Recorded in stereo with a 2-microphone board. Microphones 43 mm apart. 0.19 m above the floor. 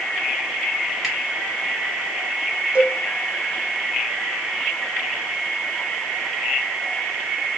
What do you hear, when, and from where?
1.0 s a finger snap: 5° right (ahead or behind), 1.3 m
2.8 s a cowbell: 40° right (ahead or behind), 0.5 m